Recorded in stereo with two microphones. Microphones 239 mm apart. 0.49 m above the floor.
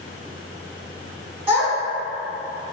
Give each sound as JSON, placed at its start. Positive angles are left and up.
{"t": 1.5, "sound": "a child speaking", "side_deg": -25, "distance_m": 1.4}